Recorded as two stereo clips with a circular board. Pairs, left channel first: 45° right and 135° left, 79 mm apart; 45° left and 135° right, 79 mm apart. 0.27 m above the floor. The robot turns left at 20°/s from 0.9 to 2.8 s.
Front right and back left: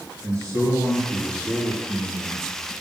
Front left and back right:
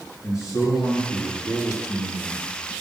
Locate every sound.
0.2 s a man speaking: 90° left, 4 m; by 2.5 s 60° left, 4 m